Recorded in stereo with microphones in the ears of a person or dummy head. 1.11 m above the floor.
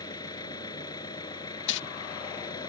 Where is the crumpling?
65° left (ahead or behind).